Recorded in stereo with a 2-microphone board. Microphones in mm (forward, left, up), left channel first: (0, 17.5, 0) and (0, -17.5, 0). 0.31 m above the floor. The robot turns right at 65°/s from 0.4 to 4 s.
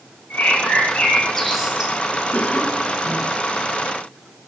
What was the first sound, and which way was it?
A bird, 105° left.